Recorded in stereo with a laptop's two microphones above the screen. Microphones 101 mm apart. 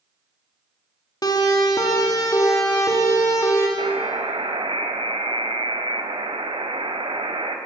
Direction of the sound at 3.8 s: 65° right (ahead or behind).